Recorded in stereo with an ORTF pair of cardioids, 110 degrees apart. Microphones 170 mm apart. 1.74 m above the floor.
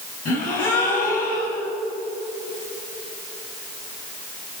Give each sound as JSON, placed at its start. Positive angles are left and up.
{"t": 0.2, "sound": "a gasp", "azimuth_deg": 60, "distance_m": 5.0}